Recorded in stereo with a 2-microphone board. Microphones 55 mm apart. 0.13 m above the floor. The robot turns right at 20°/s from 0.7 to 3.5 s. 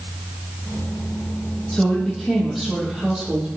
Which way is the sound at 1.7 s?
10° left (ahead or behind).